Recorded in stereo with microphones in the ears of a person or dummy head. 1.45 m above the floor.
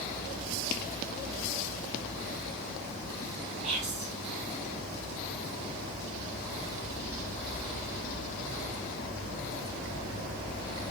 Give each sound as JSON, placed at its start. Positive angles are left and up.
{"t": 3.6, "sound": "whispering", "side_deg": -40, "distance_m": 1.4}